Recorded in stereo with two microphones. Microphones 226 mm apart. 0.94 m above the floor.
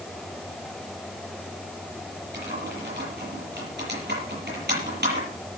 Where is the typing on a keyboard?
50° right (ahead or behind), 8 m.